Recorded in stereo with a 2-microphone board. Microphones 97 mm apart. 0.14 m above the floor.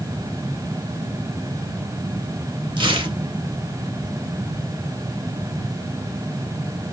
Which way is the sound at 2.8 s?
50° right (ahead or behind).